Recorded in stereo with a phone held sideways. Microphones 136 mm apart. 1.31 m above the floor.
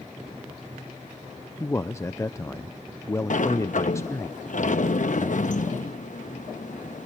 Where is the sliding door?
65° left (ahead or behind), 0.9 m.